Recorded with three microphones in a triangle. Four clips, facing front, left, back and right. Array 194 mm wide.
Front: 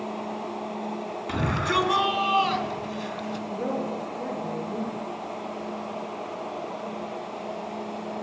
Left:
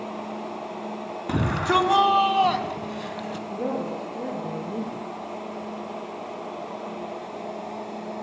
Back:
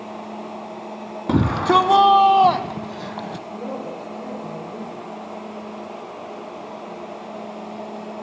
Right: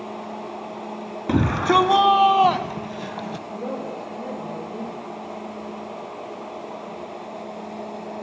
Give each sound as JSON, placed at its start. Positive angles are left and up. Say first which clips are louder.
{"t": 1.3, "sound": "a shout", "louder": "right 4 dB, back 10 dB", "azimuth_deg": -155, "distance_m": 3.0}
{"t": 3.5, "sound": "a woman speaking", "louder": "left 3 dB, front 3 dB", "azimuth_deg": 70, "distance_m": 8.0}